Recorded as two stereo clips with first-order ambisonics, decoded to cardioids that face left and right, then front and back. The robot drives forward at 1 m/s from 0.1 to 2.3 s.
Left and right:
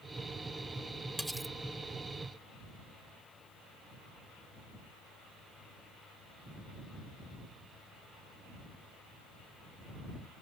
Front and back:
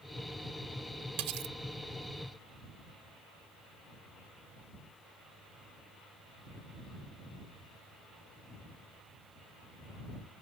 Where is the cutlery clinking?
Straight behind.